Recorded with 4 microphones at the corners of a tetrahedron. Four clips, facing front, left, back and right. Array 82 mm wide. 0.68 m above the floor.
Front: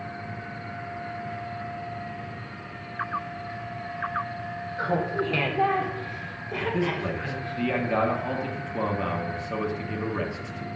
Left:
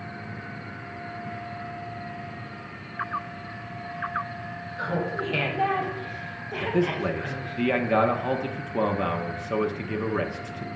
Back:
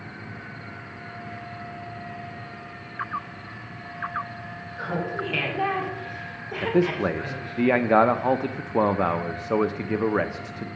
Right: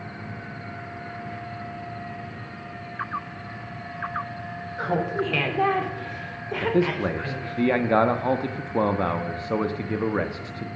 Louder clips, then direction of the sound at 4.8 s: Right 3 dB, front 2 dB; 60° right.